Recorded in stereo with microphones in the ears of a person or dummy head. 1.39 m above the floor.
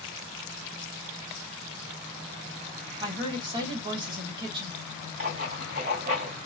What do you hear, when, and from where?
3.0 s a woman speaking: 25° right (ahead or behind), 1.3 m
5.2 s writing: 35° right (ahead or behind), 1.3 m